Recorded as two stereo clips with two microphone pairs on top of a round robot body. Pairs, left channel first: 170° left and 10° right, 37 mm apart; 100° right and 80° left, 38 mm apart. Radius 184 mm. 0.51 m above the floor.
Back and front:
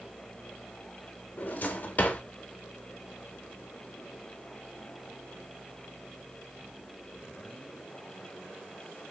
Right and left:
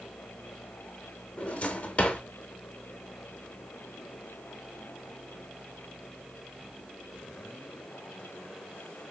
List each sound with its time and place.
1.4 s a drawer: 150° right, 0.9 m